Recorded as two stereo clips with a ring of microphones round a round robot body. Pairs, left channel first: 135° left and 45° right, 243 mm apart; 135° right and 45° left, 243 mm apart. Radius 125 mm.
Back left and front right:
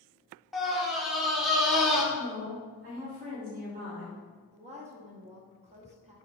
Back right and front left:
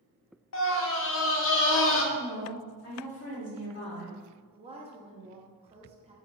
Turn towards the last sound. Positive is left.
turn(degrees=-5)